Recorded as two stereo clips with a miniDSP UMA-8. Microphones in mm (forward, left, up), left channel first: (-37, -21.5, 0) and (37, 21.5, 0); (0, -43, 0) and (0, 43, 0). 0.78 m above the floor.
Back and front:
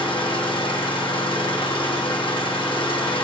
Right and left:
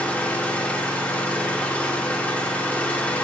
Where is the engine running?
165° right, 1.1 m.